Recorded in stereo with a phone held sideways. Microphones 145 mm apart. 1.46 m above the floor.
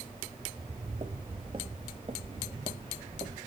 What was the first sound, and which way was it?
Footsteps, 35° right (ahead or behind).